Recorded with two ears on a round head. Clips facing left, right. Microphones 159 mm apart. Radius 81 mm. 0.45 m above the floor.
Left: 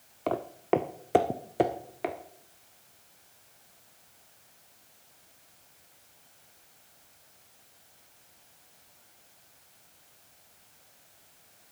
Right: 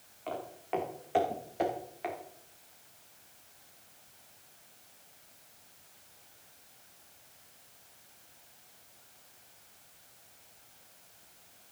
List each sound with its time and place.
0.3 s footsteps: 70° left (ahead or behind), 1.2 m; by 2.1 s 55° left (ahead or behind), 2 m